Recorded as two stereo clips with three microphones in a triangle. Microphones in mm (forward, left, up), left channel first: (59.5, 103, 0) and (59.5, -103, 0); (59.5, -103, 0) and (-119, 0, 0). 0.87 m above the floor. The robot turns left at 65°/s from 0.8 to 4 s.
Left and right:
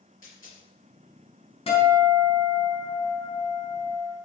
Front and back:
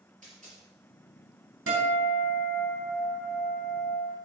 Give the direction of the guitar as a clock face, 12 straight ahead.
7 o'clock.